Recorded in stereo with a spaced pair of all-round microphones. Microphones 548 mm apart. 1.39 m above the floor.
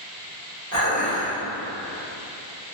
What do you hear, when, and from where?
0.7 s dishes clattering: 30° left (ahead or behind), 1.8 m